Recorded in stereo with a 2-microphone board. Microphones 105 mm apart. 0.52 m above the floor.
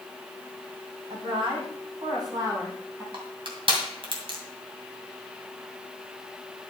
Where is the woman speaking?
65° right (ahead or behind), 3.5 m; by 3.0 s 30° right (ahead or behind), 4.5 m.